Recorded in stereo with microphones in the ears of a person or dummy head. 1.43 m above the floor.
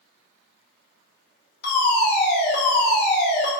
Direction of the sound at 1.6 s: 55° left (ahead or behind).